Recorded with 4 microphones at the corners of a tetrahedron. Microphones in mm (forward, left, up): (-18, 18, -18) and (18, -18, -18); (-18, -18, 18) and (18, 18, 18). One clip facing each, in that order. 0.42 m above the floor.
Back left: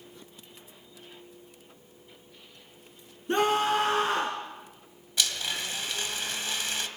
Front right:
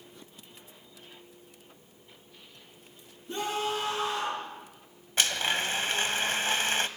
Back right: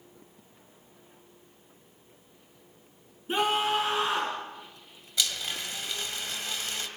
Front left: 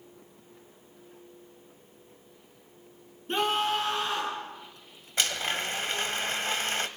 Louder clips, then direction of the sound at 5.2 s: Front right 3 dB, front left 3 dB; straight ahead.